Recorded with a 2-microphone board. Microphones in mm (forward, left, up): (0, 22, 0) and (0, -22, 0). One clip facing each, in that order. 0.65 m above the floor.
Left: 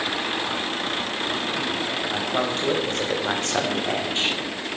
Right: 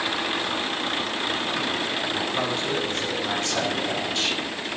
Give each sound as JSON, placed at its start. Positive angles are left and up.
{"t": 2.1, "sound": "a man speaking", "side_deg": 65, "distance_m": 4.5}